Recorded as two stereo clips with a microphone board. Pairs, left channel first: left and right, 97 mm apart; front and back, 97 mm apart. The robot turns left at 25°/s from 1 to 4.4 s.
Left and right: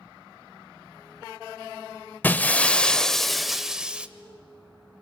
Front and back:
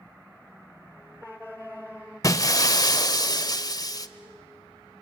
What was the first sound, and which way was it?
Breaking glass, 30° left.